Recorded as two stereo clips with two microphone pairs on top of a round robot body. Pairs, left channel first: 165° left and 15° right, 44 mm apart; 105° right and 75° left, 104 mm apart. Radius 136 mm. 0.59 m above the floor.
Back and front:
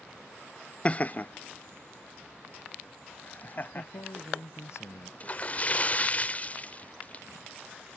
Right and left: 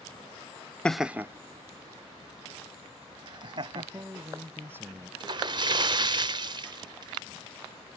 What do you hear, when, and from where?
0.8 s laughter: 150° left; by 4.1 s 115° left
3.8 s a man speaking: 145° left
5.2 s a splash: 110° left